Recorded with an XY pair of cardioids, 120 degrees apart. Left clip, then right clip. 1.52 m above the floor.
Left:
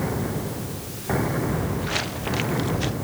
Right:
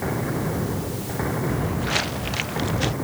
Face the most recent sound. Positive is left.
turn(degrees=-20)